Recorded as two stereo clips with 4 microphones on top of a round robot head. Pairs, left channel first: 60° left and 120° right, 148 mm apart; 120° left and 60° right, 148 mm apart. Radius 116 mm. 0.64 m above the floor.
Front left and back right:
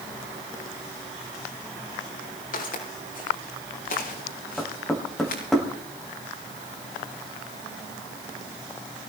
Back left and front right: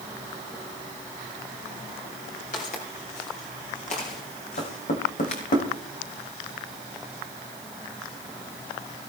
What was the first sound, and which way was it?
Footsteps, 90° left.